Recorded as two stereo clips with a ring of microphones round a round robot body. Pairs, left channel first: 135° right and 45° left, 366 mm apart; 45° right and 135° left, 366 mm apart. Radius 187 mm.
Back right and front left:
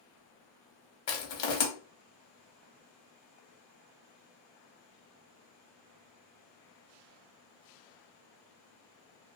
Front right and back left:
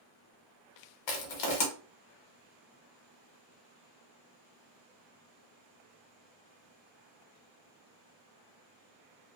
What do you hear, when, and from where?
1.1 s crushing: 80° right, 0.8 m